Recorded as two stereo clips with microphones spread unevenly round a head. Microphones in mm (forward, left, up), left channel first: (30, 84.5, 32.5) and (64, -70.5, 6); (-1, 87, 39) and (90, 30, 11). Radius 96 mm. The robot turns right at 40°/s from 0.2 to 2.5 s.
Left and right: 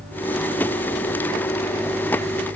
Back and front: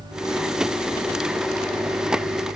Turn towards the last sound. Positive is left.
No sound to turn to.